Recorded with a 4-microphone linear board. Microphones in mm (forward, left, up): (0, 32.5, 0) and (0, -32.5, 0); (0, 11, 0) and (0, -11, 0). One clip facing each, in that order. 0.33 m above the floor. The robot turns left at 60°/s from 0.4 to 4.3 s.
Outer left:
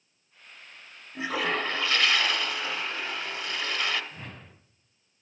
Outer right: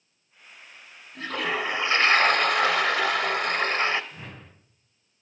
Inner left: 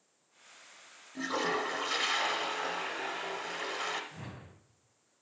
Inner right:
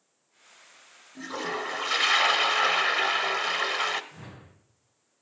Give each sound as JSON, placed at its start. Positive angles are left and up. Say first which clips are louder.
{"t": 1.1, "sound": "a toilet flushing", "louder": "even, even", "azimuth_deg": 15, "distance_m": 0.9}
{"t": 4.1, "sound": "a whoosh", "louder": "outer right 1 dB, even", "side_deg": 10, "distance_m": 2.0}